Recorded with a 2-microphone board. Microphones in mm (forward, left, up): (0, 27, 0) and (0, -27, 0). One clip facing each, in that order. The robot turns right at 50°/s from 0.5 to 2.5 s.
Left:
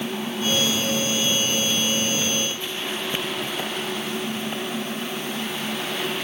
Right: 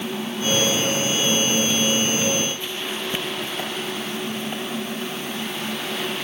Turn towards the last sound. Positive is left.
No sound to turn to.